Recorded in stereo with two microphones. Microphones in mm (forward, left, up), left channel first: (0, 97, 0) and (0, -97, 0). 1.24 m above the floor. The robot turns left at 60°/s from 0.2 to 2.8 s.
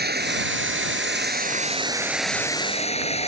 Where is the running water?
55° right; by 3.3 s 145° left.